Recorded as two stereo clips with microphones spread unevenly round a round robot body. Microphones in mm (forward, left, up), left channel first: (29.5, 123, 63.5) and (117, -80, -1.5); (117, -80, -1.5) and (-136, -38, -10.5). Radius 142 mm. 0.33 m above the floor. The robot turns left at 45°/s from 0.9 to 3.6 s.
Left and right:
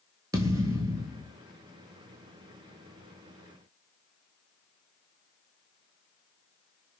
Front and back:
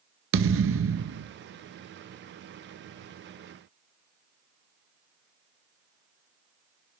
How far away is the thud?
About 0.7 m.